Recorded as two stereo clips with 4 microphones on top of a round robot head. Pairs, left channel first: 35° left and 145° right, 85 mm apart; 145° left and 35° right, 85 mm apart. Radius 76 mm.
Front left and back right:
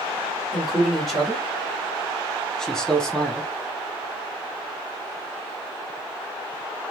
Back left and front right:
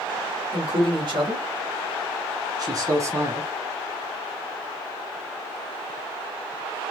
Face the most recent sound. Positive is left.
turn(degrees=-25)